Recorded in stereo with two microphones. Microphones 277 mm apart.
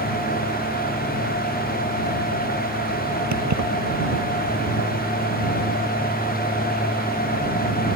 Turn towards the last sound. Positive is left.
turn(degrees=-85)